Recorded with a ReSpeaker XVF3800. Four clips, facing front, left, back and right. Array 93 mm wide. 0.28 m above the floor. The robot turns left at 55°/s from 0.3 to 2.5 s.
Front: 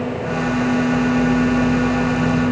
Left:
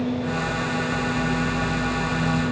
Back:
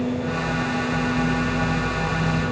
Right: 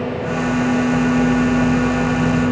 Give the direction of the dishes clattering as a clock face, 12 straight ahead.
No dishes clattering in this recording.